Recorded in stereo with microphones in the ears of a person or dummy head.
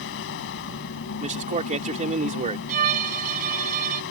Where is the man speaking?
30° right (ahead or behind).